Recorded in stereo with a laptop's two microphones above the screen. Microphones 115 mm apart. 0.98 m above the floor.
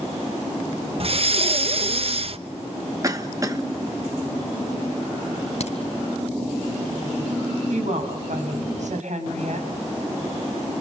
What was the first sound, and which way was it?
Breathing, 50° right (ahead or behind).